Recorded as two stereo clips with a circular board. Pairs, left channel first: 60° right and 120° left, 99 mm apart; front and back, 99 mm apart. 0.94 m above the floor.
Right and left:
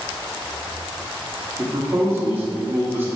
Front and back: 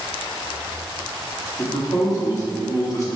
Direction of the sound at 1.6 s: 50° left.